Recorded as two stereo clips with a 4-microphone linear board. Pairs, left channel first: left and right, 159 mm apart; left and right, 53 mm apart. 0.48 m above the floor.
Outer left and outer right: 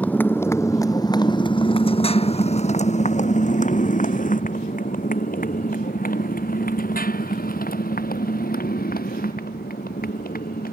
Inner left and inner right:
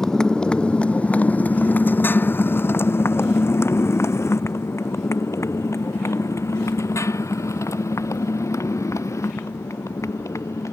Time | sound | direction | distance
0.0 | a motorcycle | 10° left (ahead or behind) | ?